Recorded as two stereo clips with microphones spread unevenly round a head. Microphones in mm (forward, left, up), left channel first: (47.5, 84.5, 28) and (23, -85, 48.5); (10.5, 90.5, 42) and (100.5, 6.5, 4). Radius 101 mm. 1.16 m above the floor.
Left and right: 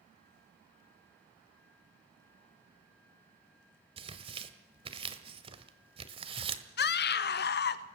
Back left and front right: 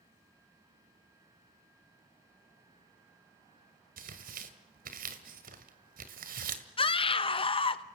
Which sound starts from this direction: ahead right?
Tearing paper, at 4.0 s.